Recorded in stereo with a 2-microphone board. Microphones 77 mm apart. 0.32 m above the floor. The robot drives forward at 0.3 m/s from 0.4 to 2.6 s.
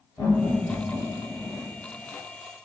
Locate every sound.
0.2 s laughter: 35° left (ahead or behind), 1.4 m; by 1.7 s 40° left (ahead or behind), 1.2 m